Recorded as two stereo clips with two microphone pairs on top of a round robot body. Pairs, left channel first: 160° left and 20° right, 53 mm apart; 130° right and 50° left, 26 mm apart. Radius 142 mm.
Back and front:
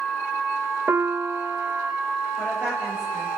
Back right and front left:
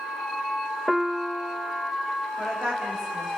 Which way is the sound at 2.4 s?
55° left.